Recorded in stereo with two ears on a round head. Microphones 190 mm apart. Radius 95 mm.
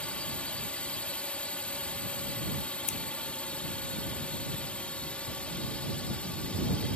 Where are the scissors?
35° left (ahead or behind).